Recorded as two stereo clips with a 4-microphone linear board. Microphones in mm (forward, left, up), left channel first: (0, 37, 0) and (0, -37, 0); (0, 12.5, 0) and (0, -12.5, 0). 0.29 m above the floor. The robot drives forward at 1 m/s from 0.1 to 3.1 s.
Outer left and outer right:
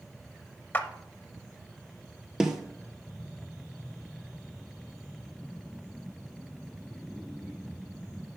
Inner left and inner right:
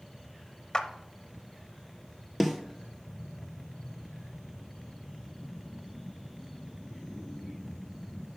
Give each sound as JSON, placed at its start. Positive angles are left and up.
{"t": 0.7, "sound": "a clap", "side_deg": 25, "distance_m": 0.7}
{"t": 2.4, "sound": "a snare drum", "side_deg": -10, "distance_m": 0.9}